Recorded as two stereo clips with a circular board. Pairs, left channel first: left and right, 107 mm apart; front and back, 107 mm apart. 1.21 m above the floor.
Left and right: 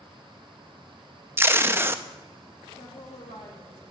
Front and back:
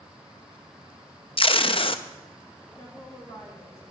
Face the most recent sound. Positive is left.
turn(degrees=65)